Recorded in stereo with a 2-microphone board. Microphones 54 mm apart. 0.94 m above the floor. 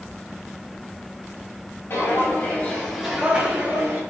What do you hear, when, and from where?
1.9 s footsteps: 50° left (ahead or behind), 1.4 m; by 4.0 s 45° right (ahead or behind), 1.3 m